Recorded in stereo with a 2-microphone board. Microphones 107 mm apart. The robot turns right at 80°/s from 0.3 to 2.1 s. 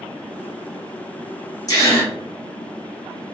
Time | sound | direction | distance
1.7 | a gasp | 115° left | 0.9 m